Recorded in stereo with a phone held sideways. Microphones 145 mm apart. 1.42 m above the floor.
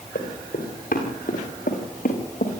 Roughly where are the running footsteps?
Left.